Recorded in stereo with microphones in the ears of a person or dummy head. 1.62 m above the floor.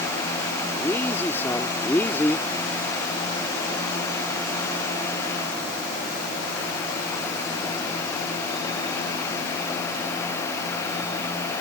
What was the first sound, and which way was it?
A man speaking, 15° left (ahead or behind).